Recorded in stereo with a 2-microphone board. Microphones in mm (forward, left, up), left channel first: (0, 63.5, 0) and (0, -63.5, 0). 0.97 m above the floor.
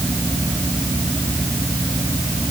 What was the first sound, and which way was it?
Only background noise.